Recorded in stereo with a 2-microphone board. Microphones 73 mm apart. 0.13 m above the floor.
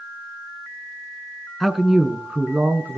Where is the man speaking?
Centre (ahead or behind), 1.3 m; by 3.0 s 30° right (ahead or behind), 1.5 m.